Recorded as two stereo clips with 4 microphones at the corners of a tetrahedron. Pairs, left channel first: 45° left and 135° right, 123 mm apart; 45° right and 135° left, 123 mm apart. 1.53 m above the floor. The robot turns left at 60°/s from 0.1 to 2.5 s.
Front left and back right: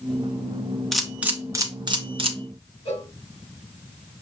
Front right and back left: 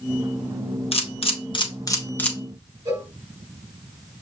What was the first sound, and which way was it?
A camera shutter, 40° right.